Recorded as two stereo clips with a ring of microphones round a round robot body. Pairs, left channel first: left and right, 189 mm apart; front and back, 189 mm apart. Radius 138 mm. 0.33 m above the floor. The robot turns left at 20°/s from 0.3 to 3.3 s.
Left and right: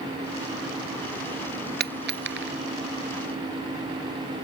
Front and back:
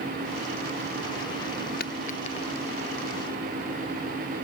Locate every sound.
1.8 s a dropped coin: 55° right; by 2.5 s 70° right